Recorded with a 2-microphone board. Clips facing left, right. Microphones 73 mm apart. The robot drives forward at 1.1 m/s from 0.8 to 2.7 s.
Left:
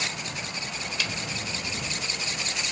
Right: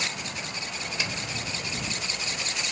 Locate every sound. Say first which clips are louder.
1.0 s a snare drum: even; 25° right (ahead or behind); by 1.1 s 20° right (ahead or behind)